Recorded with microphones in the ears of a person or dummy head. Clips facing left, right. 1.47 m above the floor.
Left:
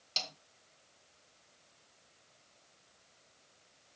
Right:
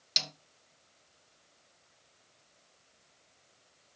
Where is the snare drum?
25° right (ahead or behind), 1.3 m.